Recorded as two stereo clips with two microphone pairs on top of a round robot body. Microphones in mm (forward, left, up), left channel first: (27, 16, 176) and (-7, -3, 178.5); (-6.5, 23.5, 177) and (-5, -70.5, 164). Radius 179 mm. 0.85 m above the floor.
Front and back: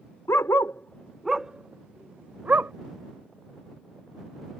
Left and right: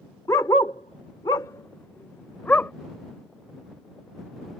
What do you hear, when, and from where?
0.3 s a dog barking: 35° left; by 2.7 s 160° left